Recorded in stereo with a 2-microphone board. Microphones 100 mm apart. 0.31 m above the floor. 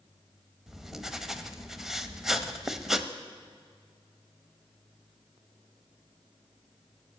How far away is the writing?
About 0.7 m.